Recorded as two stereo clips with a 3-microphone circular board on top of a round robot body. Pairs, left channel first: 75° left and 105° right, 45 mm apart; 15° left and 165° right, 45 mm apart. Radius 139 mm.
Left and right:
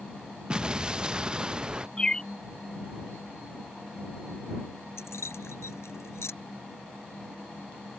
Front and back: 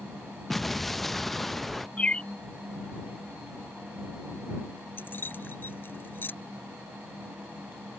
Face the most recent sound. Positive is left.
turn(degrees=55)